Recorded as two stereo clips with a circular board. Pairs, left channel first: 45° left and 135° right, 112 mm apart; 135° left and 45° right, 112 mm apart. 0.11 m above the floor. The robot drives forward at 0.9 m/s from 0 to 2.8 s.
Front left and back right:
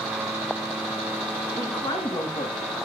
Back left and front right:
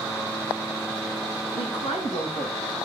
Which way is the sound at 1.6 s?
100° left.